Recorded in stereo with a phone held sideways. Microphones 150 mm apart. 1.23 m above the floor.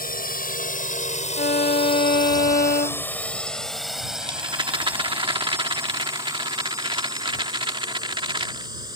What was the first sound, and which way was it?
A drone, 75° left (ahead or behind).